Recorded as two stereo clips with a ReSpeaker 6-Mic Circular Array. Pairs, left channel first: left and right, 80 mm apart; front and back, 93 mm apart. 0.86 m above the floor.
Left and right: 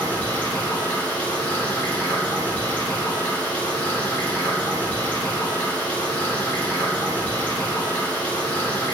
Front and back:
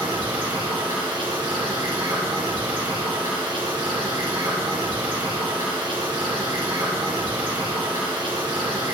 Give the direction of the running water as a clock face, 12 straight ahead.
7 o'clock.